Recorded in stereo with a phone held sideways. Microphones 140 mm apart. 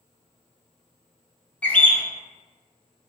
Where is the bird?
10° left (ahead or behind), 0.5 m.